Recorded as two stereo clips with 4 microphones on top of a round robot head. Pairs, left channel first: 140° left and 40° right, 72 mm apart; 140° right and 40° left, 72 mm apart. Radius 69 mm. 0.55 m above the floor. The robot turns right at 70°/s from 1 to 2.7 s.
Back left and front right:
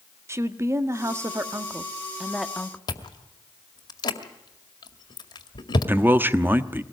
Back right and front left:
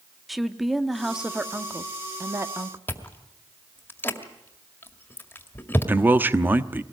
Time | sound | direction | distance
0.3 | a woman speaking | 50° right | 1.3 m
2.9 | chewing | 160° left | 2 m
5.9 | a man speaking | straight ahead | 1.0 m